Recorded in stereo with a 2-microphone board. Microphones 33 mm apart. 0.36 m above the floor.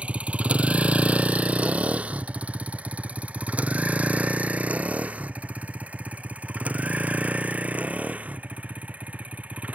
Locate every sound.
0.0 s a vehicle: 40° right (ahead or behind); by 9.8 s 50° right (ahead or behind)